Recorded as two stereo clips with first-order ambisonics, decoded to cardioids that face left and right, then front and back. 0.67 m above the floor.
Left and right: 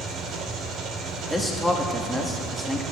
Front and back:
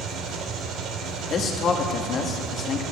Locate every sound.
0.0 s an engine running: 135° right, 1.4 m
1.3 s a man speaking: straight ahead, 1.2 m